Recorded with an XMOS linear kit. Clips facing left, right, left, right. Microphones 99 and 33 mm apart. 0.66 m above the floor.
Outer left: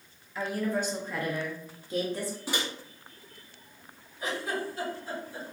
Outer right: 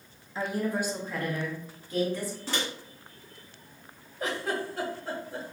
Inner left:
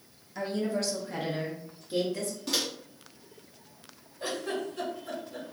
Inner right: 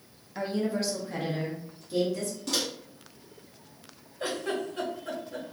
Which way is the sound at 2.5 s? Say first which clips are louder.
Outer right 1 dB, even; 10° left (ahead or behind).